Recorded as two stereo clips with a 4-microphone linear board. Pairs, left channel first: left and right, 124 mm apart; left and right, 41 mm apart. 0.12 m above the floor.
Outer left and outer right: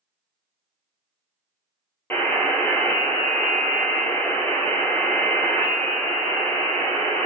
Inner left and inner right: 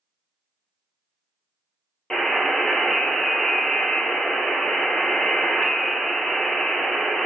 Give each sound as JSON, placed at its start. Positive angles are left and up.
{"t": 2.1, "sound": "a buzzer", "side_deg": 15, "distance_m": 1.2}